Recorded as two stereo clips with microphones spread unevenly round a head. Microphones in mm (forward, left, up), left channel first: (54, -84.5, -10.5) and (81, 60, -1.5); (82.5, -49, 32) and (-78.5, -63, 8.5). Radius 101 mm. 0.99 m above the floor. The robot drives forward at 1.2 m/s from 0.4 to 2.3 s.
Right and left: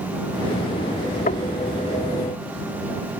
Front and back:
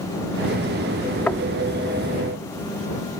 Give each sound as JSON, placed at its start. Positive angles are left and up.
{"t": 1.3, "sound": "knocking", "azimuth_deg": -75}